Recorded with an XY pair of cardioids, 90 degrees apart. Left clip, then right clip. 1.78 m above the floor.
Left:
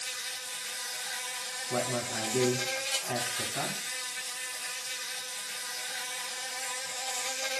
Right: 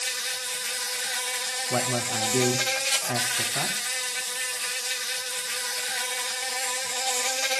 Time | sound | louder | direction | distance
0.0 | an insect | right 7 dB | 65° right | 0.9 m
1.7 | a man speaking | right 4 dB | 60° right | 2 m